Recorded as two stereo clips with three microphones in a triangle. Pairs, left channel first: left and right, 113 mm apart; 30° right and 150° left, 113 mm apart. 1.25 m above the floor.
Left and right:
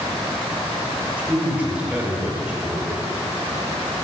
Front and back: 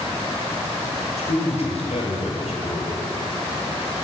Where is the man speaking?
10° right, 5.5 m.